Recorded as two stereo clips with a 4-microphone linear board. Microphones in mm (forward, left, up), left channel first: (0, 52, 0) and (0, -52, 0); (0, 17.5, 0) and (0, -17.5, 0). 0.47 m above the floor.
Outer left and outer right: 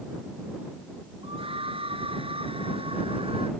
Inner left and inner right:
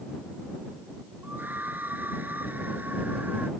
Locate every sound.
1.2 s a scream: 60° right (ahead or behind)